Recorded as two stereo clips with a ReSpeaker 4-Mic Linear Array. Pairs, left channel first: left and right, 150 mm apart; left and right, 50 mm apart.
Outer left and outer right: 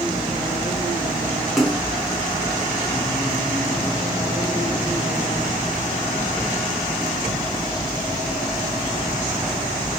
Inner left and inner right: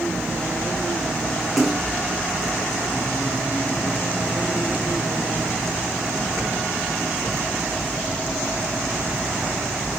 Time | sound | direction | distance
1.6 | a splash | centre (ahead or behind) | 0.9 m